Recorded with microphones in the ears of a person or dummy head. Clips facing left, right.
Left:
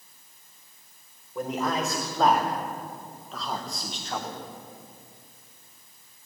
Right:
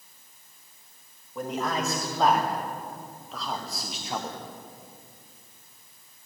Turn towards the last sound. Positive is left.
turn(degrees=-20)  # may be behind; listen again after turning